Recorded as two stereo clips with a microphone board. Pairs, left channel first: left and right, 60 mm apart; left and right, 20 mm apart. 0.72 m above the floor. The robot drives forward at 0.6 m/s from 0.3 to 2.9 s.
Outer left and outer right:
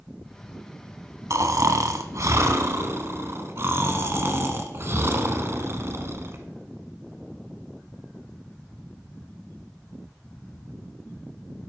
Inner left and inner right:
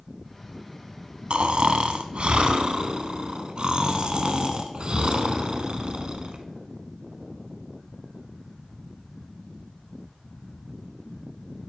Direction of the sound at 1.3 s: 60° right (ahead or behind).